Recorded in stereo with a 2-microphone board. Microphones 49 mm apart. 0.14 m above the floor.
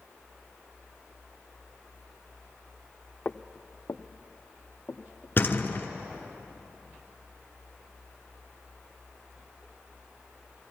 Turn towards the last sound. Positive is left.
turn(degrees=45)  # may be behind; listen again after turning